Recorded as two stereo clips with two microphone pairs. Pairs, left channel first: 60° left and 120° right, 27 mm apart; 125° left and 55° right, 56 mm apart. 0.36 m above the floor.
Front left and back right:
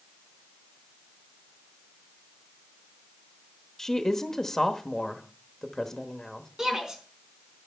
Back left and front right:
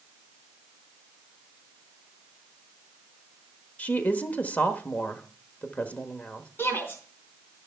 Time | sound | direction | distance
3.8 | a woman speaking | 105° left | 1.0 m
6.6 | a shout | 175° left | 3.5 m